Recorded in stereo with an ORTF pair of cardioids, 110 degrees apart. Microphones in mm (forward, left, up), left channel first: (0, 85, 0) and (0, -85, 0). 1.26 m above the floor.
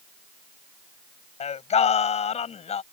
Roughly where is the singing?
Ahead left.